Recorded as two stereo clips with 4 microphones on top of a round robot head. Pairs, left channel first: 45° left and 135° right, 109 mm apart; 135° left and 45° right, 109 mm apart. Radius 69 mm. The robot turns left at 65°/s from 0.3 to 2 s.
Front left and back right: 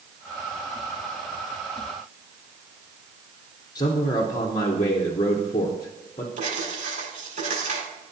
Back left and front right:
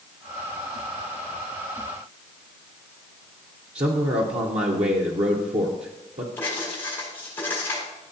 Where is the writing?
150° right, 4.5 m.